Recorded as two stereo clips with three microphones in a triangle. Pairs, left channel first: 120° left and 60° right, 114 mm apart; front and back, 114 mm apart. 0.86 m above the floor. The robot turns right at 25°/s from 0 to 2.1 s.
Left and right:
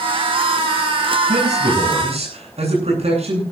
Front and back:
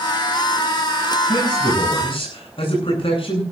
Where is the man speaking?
55° right, 9.5 m; by 3.4 s 35° right, 9.5 m.